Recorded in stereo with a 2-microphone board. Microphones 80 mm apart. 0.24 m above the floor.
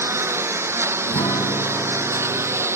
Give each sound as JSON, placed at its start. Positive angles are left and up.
{"t": 0.0, "sound": "a lawn mower", "side_deg": -30}
{"t": 1.1, "sound": "a guitar", "side_deg": 60}